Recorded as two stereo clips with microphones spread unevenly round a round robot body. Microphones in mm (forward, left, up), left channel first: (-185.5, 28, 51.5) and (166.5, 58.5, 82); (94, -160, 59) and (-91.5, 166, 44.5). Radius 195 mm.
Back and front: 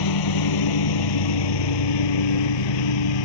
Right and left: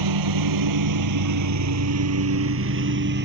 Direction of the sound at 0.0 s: 155° left.